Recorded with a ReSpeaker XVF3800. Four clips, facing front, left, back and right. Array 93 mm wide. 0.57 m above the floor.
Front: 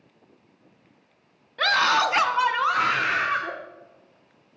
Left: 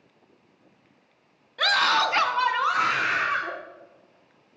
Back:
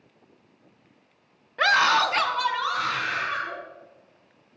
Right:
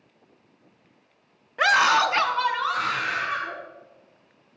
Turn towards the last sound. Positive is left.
turn(degrees=35)